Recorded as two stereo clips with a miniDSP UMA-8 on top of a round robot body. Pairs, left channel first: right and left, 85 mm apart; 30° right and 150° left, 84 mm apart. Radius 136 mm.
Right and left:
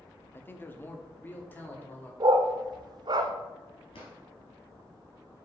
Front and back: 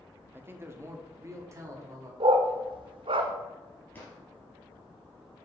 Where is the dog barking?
130° left, 0.6 m.